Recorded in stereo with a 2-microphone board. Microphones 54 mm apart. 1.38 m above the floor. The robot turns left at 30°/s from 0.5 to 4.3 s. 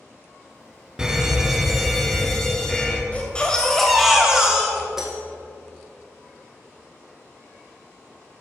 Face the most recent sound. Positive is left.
turn(degrees=-5)  # may be behind; listen again after turning